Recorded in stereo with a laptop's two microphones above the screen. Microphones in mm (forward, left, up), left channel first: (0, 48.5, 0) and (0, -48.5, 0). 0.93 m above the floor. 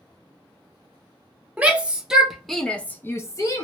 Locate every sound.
1.6 s a shout: 15° right (ahead or behind), 1.0 m; by 3.6 s 40° left (ahead or behind), 0.6 m